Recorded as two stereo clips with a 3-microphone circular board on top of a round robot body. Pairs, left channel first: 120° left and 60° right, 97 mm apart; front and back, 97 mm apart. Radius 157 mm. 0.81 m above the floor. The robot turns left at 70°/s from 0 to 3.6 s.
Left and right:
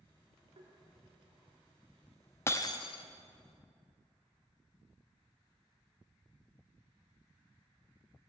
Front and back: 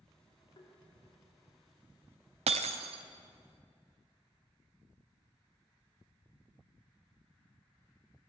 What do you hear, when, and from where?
0.6 s tapping: 35° right, 2.5 m; by 0.7 s 45° right, 2.5 m
2.5 s breaking glass: 175° right, 0.5 m; by 3.0 s 145° left, 0.5 m